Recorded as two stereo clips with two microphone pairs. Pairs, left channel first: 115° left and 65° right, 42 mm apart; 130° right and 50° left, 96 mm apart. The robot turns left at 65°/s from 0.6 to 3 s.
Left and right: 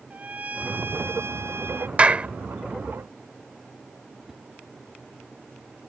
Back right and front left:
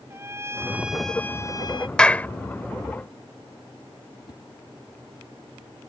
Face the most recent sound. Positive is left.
turn(degrees=-150)